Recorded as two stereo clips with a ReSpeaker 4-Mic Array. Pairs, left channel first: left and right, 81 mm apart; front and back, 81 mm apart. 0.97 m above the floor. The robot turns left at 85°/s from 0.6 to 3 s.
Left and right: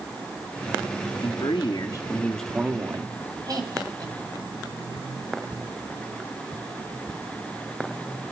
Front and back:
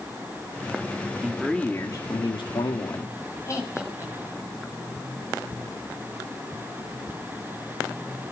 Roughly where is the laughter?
Ahead right.